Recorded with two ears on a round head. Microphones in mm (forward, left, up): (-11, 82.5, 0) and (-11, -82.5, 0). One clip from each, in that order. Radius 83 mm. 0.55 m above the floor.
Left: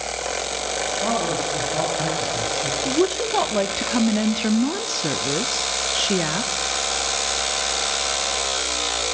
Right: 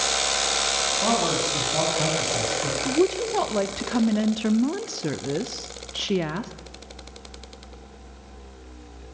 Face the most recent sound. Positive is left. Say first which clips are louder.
# left 1 dB
turn(degrees=20)  # may be behind; listen again after turning